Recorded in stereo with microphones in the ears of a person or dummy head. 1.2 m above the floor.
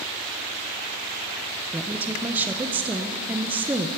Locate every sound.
1.7 s a woman speaking: 15° right (ahead or behind), 0.7 m